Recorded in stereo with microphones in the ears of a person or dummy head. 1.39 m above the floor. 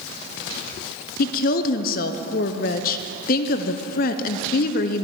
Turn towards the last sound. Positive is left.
turn(degrees=45)  # may be behind; listen again after turning